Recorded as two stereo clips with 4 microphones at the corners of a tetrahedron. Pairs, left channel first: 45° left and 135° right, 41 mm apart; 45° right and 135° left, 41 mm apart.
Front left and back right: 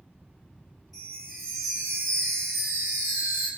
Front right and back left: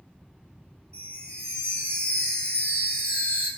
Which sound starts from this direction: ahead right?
A chime, at 0.9 s.